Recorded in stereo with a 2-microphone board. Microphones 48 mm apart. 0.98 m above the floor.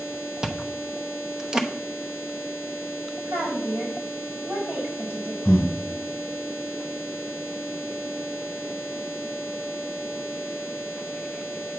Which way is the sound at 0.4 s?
15° right (ahead or behind).